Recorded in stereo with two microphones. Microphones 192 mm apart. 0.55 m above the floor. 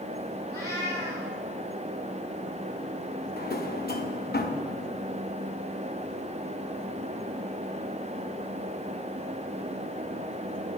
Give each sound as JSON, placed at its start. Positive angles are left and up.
{"t": 0.5, "sound": "a cat meowing", "side_deg": 15, "distance_m": 3.5}
{"t": 3.4, "sound": "a drawer", "side_deg": 55, "distance_m": 0.7}